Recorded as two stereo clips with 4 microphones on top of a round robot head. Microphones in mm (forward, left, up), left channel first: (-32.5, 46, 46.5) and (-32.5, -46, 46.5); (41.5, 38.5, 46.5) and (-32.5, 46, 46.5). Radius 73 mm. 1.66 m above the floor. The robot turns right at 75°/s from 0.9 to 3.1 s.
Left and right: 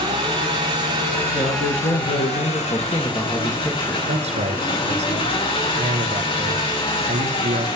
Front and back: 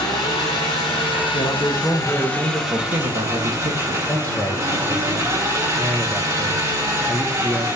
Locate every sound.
0.0 s an engine running: 45° right, 5.5 m; by 7.8 s 120° left, 5.5 m
1.3 s a man speaking: 20° left, 2 m; by 4.0 s 150° left, 2 m
4.1 s a man speaking: 85° right, 2.0 m